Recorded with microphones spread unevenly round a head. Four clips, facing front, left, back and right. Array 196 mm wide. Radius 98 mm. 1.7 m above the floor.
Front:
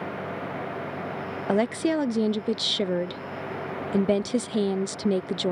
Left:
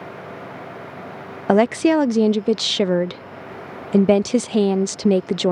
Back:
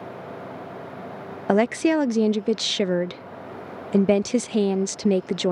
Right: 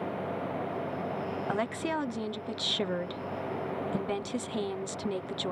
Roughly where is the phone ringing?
No phone ringing in this recording.